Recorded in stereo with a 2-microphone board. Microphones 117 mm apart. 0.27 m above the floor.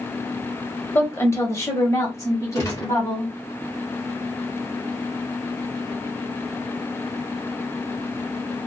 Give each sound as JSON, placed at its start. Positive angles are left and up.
{"t": 0.9, "sound": "a woman speaking", "side_deg": 20, "distance_m": 0.9}
{"t": 2.5, "sound": "a gunshot", "side_deg": 25, "distance_m": 1.6}